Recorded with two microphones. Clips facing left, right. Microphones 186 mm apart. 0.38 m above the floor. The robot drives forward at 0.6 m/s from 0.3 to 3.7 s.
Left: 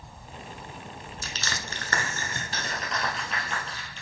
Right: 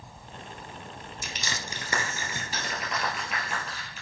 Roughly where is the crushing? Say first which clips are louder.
Even; centre.